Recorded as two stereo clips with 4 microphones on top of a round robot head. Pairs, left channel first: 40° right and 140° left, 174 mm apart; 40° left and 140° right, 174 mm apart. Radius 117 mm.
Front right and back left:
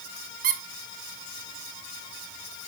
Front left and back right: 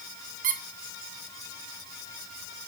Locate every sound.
0.4 s a squeak: straight behind, 1.0 m